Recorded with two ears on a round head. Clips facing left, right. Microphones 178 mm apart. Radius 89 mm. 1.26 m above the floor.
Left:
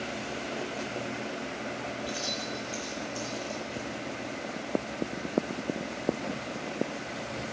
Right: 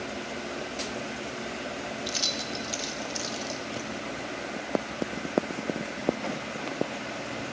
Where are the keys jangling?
50° right (ahead or behind), 0.7 m.